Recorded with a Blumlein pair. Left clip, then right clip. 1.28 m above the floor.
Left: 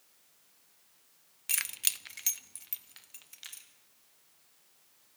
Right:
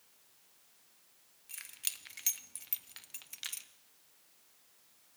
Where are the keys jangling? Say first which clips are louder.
Left 10 dB; 40° left, 0.5 m; by 3.7 s 20° right, 1.3 m.